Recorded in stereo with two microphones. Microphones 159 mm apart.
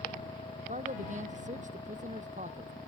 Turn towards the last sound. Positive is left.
turn(degrees=-55)  # may be behind; listen again after turning